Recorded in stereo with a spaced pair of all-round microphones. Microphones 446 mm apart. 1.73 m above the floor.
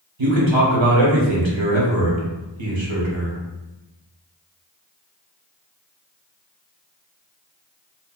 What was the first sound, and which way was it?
A man speaking, 80° right.